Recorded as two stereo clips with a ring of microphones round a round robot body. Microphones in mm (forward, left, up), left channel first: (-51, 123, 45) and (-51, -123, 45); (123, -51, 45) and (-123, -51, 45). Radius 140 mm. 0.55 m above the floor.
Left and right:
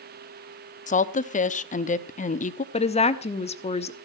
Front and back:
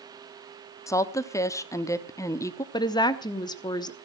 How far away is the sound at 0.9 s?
About 0.8 m.